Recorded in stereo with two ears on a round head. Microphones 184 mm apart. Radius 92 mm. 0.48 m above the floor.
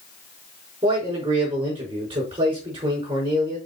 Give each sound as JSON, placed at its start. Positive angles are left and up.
{"t": 0.8, "sound": "a man speaking", "side_deg": -25, "distance_m": 5.0}